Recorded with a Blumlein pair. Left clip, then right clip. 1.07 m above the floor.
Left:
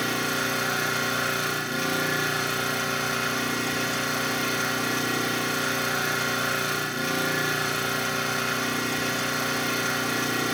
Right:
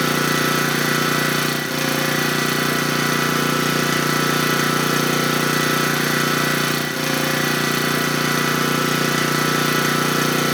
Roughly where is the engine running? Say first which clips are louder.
Right 7 dB; ahead right.